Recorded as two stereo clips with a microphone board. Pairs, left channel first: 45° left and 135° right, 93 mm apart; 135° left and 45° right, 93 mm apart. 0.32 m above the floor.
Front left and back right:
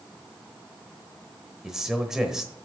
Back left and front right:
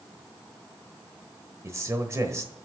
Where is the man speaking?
55° right, 1.1 m.